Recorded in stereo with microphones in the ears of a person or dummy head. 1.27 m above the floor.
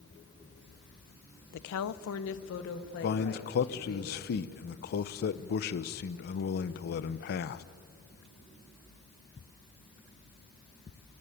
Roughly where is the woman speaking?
Left.